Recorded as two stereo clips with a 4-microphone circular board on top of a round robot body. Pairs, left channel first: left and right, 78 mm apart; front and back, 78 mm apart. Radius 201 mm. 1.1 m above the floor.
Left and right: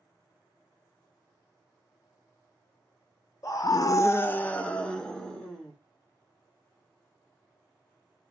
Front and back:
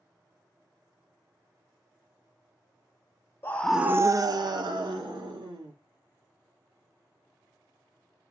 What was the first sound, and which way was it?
A scream, 55° left.